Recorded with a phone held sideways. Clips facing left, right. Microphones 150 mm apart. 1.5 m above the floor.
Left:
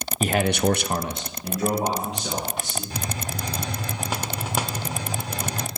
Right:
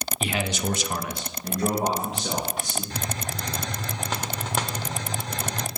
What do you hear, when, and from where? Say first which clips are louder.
0.2 s a man speaking: left 7 dB; 40° left (ahead or behind), 0.9 m; by 2.8 s 5° right (ahead or behind), 3 m
2.9 s a hiss: left 1 dB; 10° left (ahead or behind), 0.6 m